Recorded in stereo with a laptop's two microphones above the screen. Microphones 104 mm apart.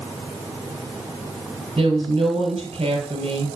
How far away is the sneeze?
No sneeze in this recording.